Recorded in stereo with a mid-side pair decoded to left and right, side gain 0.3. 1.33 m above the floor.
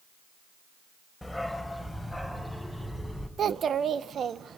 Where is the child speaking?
70° right, 0.8 m.